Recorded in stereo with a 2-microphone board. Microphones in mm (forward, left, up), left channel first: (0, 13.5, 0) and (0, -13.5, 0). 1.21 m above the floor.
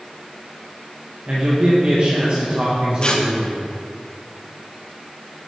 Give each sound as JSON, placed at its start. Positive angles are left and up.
{"t": 1.3, "sound": "a man speaking", "side_deg": -45, "distance_m": 1.5}
{"t": 3.0, "sound": "tearing paper", "side_deg": 35, "distance_m": 0.8}